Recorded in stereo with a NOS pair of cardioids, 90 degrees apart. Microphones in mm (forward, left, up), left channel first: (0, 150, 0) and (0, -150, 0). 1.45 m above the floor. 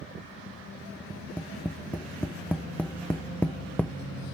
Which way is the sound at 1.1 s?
5° left.